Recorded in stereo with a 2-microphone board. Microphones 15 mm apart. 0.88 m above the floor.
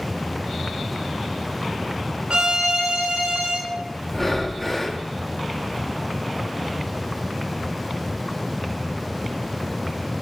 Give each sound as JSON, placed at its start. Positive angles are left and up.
{"t": 2.3, "sound": "a violin", "side_deg": -85, "distance_m": 2.5}
{"t": 4.1, "sound": "breathing", "side_deg": 10, "distance_m": 0.8}